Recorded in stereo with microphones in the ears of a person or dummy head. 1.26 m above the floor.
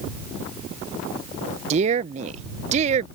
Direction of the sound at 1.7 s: 35° right (ahead or behind).